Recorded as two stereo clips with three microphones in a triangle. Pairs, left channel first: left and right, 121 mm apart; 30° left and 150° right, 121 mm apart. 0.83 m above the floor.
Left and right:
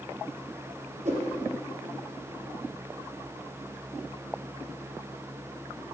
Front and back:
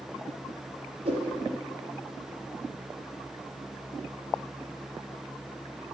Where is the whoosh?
110° right, 4 m.